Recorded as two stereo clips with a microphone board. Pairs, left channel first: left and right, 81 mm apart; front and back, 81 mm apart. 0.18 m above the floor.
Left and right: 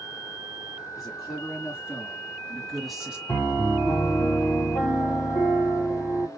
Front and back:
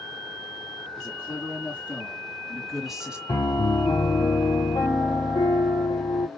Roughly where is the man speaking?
Ahead left.